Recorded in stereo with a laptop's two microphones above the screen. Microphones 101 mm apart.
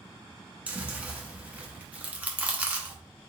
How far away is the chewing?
About 0.9 m.